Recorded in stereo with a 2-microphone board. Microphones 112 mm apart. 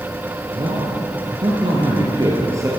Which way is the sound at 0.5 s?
50° right (ahead or behind).